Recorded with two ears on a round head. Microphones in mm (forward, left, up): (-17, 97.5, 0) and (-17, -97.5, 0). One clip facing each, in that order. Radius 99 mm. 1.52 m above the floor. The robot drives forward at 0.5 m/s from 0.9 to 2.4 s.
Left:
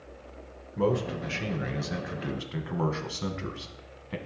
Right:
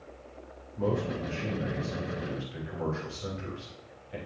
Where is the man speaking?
80° left, 1.4 m; by 4.2 s 70° left (ahead or behind), 1.4 m.